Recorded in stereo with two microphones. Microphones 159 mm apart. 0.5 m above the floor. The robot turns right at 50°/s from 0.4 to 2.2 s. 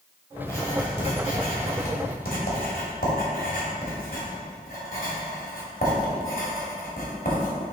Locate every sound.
0.4 s writing: 15° left (ahead or behind), 2 m; by 7.6 s 65° left (ahead or behind), 2 m